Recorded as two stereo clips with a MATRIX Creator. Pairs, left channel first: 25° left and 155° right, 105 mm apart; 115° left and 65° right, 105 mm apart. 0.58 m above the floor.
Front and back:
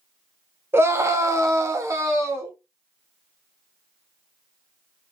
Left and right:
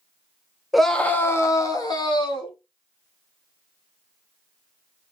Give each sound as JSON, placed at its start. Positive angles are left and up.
{"t": 0.7, "sound": "a scream", "azimuth_deg": -155, "distance_m": 0.6}